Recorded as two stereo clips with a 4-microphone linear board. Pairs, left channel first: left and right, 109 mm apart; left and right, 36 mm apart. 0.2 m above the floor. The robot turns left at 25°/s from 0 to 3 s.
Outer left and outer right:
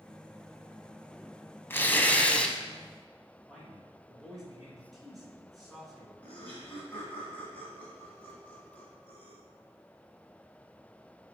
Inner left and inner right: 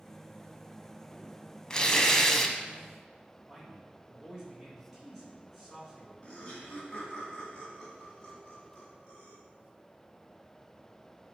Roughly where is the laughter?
Centre.